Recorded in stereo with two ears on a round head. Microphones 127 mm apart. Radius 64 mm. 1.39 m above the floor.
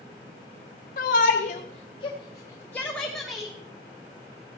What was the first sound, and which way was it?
A shout, 65° left (ahead or behind).